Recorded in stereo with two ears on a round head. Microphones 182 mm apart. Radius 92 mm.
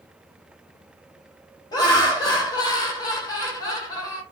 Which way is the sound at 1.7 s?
20° left (ahead or behind).